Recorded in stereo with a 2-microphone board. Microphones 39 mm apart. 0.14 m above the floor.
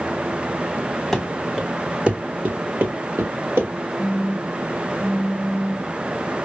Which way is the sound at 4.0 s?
20° right (ahead or behind).